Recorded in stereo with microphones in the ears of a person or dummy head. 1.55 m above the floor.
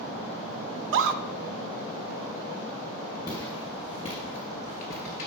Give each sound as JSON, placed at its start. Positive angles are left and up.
{"t": 0.8, "sound": "a scream", "side_deg": -65, "distance_m": 0.7}
{"t": 3.3, "sound": "footsteps", "side_deg": 15, "distance_m": 2.0}